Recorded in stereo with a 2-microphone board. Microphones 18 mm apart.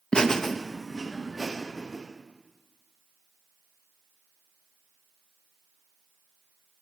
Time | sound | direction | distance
0.1 | laughter | 45° left (ahead or behind) | 0.7 m